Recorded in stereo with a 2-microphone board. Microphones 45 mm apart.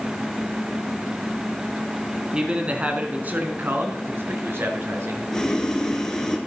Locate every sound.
2.3 s a man speaking: 20° right (ahead or behind), 2 m; by 5.2 s 70° right (ahead or behind), 3 m
5.3 s boiling: 15° left (ahead or behind), 1.7 m